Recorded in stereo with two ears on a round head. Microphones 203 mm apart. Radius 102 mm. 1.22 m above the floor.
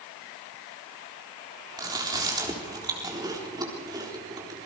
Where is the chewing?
20° right (ahead or behind), 3.5 m.